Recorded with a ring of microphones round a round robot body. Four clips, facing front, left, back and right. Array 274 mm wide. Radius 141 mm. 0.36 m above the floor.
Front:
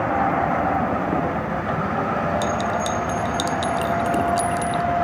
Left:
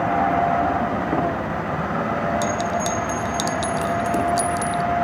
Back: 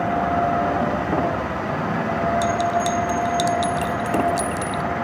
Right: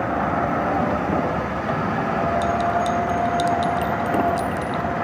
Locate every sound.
2.4 s a clink: 110° left